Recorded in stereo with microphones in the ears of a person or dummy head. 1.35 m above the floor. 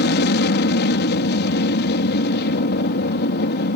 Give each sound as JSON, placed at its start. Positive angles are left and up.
{"t": 0.0, "sound": "an aircraft", "side_deg": 55}